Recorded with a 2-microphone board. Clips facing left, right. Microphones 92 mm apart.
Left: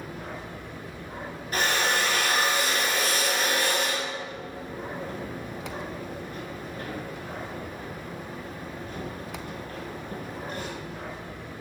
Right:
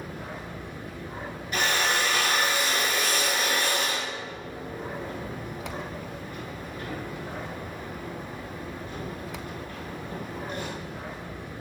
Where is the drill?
40° left (ahead or behind), 0.9 m.